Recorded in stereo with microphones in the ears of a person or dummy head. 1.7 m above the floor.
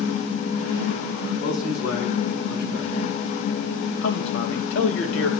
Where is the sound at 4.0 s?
80° left, 2.5 m.